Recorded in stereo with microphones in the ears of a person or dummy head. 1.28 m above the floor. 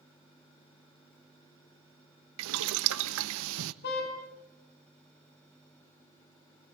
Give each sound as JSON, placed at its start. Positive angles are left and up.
{"t": 2.4, "sound": "boiling", "side_deg": -75, "distance_m": 1.0}
{"t": 3.8, "sound": "a car horn", "side_deg": 60, "distance_m": 5.5}